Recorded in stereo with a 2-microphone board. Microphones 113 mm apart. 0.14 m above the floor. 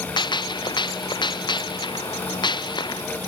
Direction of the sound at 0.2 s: 40° left (ahead or behind).